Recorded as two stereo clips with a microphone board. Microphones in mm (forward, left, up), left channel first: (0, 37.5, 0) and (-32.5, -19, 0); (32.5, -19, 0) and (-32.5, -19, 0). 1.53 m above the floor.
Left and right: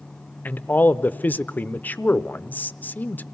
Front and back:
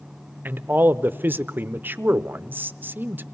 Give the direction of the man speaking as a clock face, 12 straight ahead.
8 o'clock.